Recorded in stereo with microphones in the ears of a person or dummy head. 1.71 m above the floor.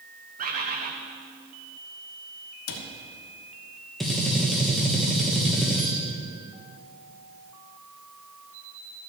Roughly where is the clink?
No clink in this recording.